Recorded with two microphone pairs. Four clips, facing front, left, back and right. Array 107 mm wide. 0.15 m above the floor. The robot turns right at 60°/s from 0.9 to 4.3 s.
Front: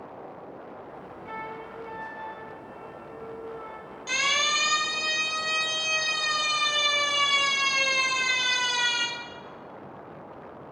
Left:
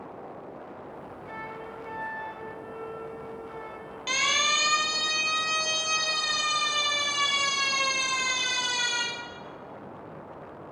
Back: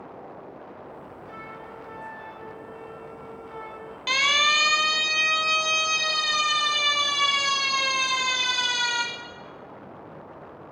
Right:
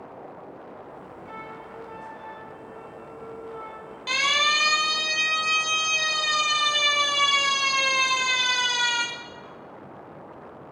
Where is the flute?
15° left, 9 m; by 4.0 s 175° left, 9 m.